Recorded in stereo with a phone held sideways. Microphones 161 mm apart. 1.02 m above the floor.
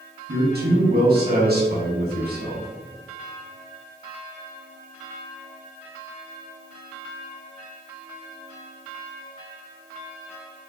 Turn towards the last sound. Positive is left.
turn(degrees=-75)  # may be behind; listen again after turning